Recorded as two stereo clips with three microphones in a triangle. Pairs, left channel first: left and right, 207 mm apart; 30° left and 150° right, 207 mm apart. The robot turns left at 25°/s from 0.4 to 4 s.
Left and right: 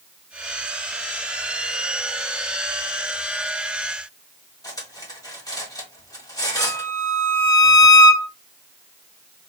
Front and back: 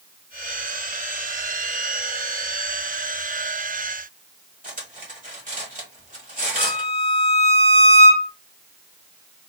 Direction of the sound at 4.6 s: 160° left.